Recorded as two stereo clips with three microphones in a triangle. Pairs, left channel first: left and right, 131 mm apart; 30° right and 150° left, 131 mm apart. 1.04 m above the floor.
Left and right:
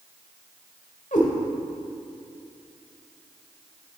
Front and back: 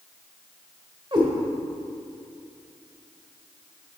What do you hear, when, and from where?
1.1 s a cat meowing: 100° left, 1.4 m